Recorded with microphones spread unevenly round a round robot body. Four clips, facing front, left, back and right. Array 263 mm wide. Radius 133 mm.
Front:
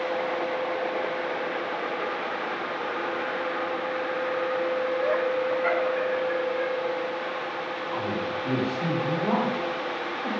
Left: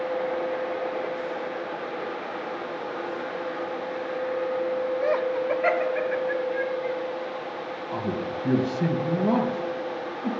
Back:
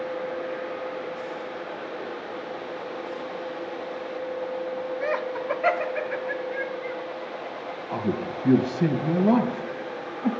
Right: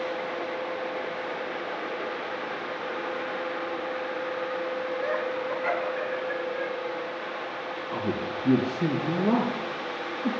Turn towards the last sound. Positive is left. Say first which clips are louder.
# left 1 dB, back 3 dB
turn(degrees=155)